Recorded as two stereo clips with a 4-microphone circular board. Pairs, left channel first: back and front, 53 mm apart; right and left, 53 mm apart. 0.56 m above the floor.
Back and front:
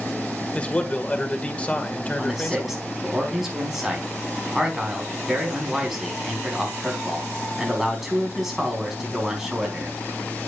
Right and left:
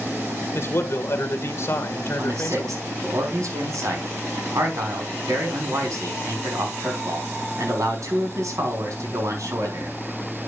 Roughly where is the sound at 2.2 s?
Left.